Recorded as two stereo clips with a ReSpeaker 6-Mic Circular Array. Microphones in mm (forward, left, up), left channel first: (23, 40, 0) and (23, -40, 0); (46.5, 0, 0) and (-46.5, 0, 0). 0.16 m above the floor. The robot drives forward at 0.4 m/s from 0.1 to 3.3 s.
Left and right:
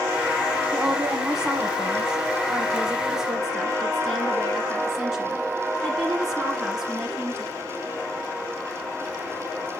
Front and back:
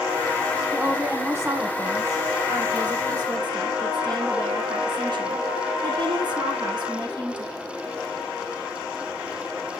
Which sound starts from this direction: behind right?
A woman speaking, at 0.7 s.